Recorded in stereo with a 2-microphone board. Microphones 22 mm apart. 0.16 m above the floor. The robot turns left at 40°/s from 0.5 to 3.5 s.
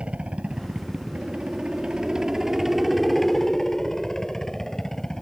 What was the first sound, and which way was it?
A helicopter, 80° right.